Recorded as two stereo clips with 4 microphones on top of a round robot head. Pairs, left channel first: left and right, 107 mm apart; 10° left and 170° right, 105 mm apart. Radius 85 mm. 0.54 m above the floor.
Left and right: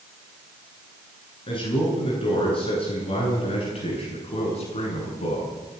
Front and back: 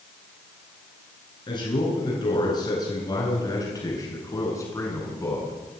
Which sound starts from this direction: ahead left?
A man speaking, at 1.5 s.